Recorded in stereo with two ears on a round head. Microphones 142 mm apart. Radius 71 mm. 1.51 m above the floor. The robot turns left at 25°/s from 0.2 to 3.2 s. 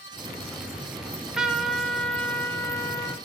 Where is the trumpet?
165° right, 1.6 m; by 3.2 s 140° left, 1.6 m.